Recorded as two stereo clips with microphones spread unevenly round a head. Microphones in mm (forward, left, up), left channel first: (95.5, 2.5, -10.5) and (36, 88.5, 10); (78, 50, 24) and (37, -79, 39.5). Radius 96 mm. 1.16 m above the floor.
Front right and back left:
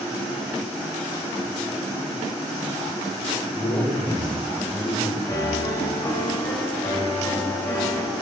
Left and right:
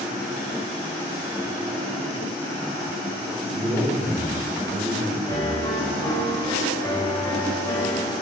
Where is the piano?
10° left, 2 m.